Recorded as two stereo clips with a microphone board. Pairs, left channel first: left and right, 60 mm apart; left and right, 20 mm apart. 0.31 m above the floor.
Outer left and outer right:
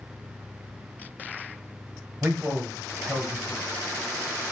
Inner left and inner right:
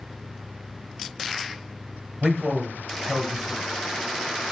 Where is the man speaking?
20° right (ahead or behind), 1.5 m.